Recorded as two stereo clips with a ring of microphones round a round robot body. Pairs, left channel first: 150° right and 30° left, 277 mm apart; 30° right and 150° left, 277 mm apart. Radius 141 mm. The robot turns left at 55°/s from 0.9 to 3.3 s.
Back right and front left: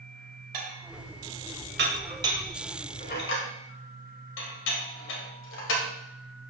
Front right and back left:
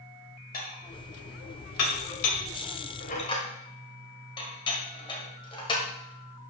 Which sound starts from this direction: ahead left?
Dishes clattering, at 0.5 s.